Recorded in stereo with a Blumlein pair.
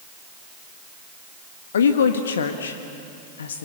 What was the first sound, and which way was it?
A woman speaking, 65° left.